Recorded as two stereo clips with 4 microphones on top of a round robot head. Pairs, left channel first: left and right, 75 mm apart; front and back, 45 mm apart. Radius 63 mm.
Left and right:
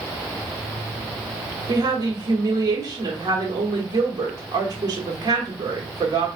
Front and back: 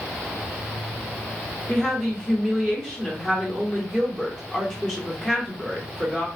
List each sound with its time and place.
1.7 s a woman speaking: 80° right, 1.3 m